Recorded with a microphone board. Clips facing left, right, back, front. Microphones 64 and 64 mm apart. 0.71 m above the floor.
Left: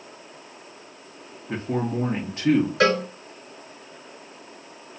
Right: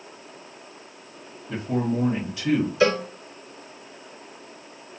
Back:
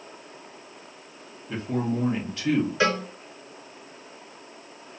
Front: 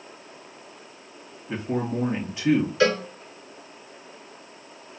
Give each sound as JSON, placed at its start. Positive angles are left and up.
{"t": 1.5, "sound": "a man speaking", "azimuth_deg": 65, "distance_m": 0.7}
{"t": 2.8, "sound": "a cowbell", "azimuth_deg": 110, "distance_m": 1.5}